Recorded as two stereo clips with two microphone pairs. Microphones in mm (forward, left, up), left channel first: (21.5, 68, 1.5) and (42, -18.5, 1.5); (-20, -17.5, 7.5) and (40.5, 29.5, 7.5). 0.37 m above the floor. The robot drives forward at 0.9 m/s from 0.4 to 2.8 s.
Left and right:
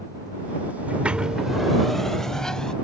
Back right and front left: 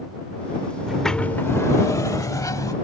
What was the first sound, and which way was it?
A sliding door, 30° right.